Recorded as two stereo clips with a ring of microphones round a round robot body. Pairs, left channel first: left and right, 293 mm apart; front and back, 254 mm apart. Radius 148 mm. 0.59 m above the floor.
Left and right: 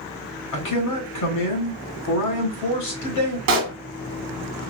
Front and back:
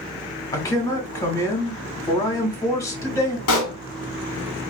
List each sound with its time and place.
0.5 s a man speaking: 75° left, 2.0 m
3.5 s a pop: 45° right, 0.9 m